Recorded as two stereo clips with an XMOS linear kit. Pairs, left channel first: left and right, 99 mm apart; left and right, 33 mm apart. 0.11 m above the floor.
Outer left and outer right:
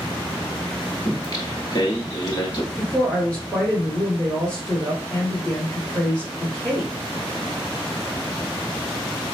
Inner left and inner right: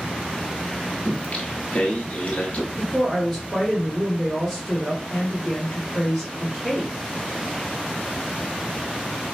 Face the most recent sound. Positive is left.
turn(degrees=10)  # may be behind; listen again after turning